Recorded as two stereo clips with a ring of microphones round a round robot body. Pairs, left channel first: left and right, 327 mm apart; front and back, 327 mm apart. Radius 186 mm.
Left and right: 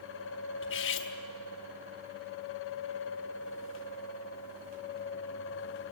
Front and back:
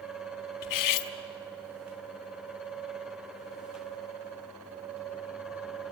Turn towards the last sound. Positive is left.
turn(degrees=30)